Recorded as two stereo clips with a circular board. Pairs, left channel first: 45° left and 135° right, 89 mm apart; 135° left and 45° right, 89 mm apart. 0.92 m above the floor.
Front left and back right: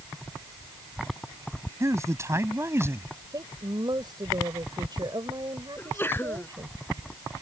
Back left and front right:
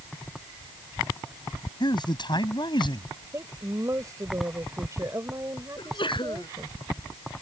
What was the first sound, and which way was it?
A man speaking, 170° left.